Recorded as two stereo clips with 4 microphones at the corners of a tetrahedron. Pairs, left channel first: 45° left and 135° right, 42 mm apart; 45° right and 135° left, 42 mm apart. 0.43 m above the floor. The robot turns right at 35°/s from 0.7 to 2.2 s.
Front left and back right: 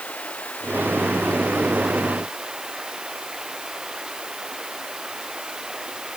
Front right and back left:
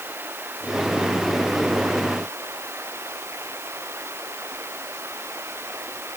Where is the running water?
100° left; by 6.2 s 155° left.